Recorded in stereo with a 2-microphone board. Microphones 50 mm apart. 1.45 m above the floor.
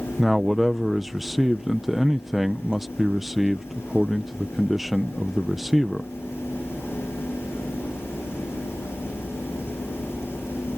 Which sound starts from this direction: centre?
A man speaking, at 0.2 s.